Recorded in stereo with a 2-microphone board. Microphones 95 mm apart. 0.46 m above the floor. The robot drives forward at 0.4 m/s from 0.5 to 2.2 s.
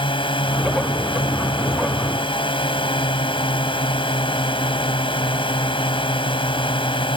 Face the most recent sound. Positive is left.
turn(degrees=65)  # may be behind; listen again after turning